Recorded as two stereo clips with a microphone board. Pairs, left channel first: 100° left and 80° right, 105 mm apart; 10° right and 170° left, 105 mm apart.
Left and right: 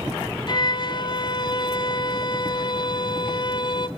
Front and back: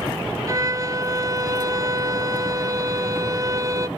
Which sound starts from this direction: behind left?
A violin, at 0.5 s.